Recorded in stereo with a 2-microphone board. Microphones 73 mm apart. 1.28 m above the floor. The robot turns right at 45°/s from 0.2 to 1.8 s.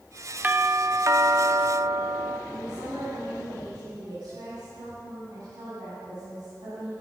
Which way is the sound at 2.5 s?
75° right (ahead or behind).